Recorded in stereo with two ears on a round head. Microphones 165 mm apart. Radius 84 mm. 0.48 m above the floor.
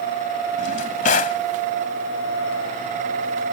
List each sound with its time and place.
0.6 s a drawer: 45° left (ahead or behind)